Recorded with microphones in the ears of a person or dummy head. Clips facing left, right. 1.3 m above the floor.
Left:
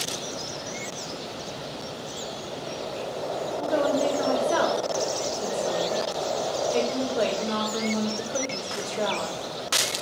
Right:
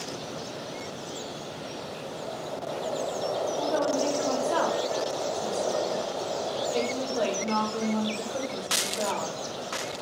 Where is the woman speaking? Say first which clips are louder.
Left 5 dB; 20° left (ahead or behind), 1.0 m.